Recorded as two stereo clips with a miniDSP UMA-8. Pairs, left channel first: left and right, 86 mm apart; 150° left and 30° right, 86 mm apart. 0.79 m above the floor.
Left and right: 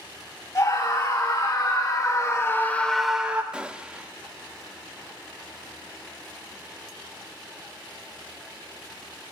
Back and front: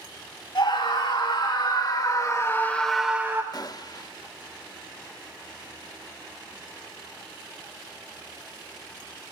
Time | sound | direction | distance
0.6 | a scream | 130° left | 3 m
3.5 | a gunshot | 170° right | 0.5 m